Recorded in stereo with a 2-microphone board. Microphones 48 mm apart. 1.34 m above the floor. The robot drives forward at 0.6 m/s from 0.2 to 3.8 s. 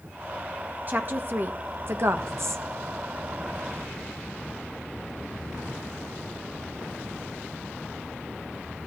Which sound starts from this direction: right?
A woman speaking, at 0.9 s.